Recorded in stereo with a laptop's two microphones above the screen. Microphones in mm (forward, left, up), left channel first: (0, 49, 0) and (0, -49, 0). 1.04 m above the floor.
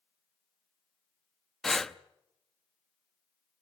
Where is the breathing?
5° left (ahead or behind), 0.8 m.